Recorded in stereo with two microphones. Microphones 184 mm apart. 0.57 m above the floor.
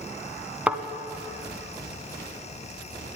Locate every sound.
0.7 s a thud: 5° right (ahead or behind), 0.7 m